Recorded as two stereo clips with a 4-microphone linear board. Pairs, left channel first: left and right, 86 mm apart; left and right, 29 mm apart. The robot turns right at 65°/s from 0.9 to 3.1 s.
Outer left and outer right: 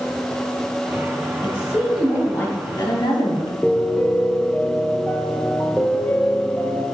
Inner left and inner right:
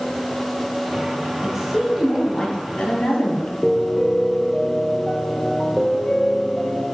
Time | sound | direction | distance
1.4 | a woman speaking | 40° right | 3 m
3.6 | a piano | 15° left (ahead or behind) | 0.7 m